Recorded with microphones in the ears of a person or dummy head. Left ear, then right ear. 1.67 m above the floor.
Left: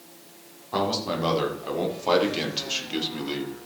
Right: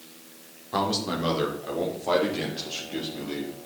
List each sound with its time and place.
0.7 s a man speaking: 15° left (ahead or behind), 4 m; by 3.5 s 55° left (ahead or behind), 4.5 m